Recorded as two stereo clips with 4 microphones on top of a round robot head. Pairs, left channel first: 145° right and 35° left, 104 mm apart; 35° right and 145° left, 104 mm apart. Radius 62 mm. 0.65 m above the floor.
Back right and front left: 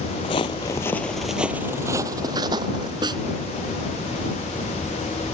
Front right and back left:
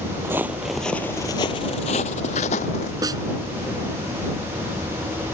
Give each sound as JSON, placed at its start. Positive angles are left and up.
{"t": 0.2, "sound": "footsteps", "azimuth_deg": -155}
{"t": 3.0, "sound": "a snare drum", "azimuth_deg": 85}